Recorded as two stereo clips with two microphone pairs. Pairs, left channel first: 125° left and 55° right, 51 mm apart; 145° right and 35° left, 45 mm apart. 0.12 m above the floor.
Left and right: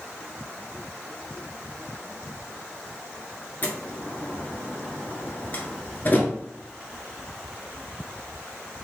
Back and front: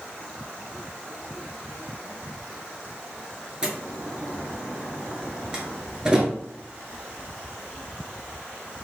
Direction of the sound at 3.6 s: 95° left.